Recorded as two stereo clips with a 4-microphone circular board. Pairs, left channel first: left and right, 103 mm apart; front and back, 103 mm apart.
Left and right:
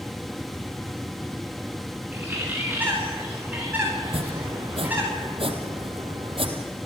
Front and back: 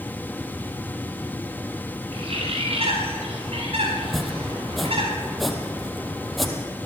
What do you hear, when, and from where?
2.1 s a bird: 160° right, 7.5 m
4.0 s chopping: 90° right, 2.5 m